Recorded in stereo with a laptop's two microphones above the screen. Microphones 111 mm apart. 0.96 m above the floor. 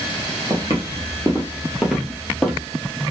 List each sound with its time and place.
0.5 s footsteps: 35° right (ahead or behind), 1.1 m; by 2.6 s 5° left (ahead or behind), 1.3 m